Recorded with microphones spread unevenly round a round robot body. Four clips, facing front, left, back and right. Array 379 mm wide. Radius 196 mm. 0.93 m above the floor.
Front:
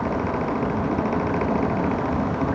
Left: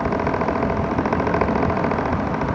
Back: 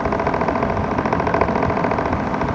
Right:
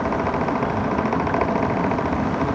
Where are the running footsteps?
No running footsteps in this recording.